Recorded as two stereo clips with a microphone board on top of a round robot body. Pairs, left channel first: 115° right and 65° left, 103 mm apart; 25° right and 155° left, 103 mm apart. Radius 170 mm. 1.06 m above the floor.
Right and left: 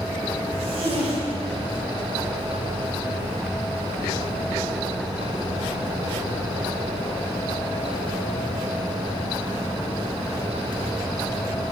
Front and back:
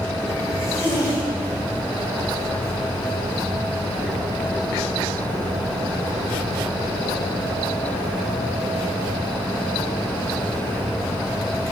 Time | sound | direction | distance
0.5 | a zipper | 40° left | 1.9 m